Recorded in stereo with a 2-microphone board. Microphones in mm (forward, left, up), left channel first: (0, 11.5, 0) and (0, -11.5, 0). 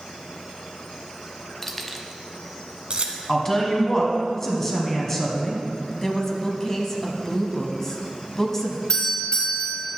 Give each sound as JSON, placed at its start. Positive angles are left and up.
{"t": 1.6, "sound": "keys jangling", "side_deg": 15, "distance_m": 0.7}
{"t": 3.3, "sound": "a woman speaking", "side_deg": 20, "distance_m": 1.7}
{"t": 6.0, "sound": "a woman speaking", "side_deg": 20, "distance_m": 1.1}
{"t": 8.9, "sound": "a doorbell", "side_deg": 45, "distance_m": 3.0}